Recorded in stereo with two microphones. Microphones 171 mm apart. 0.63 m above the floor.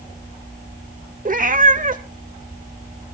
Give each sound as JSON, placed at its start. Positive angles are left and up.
{"t": 1.2, "sound": "a cat meowing", "side_deg": -50, "distance_m": 0.9}